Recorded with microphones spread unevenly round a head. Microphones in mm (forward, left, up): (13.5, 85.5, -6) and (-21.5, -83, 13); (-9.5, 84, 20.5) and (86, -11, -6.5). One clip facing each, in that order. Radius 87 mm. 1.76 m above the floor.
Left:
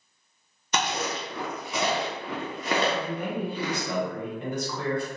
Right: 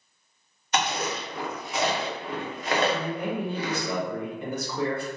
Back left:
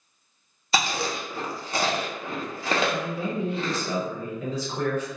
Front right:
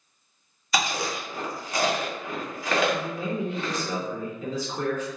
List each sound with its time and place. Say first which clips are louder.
0.7 s chewing: right 1 dB, back left 1 dB; 75° left, 0.6 m
2.9 s a man speaking: right 1 dB, back left 1 dB; 175° left, 0.9 m